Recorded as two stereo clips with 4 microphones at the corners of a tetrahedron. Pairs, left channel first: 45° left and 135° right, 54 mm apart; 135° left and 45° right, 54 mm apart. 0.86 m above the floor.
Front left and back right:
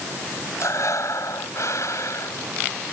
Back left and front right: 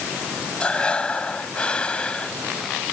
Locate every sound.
0.6 s breathing: 65° left